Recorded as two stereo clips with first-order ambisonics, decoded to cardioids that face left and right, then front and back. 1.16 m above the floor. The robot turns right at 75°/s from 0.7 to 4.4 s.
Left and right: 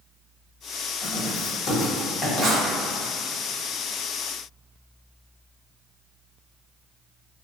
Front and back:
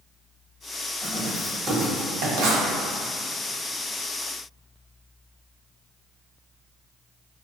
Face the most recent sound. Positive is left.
turn(degrees=-30)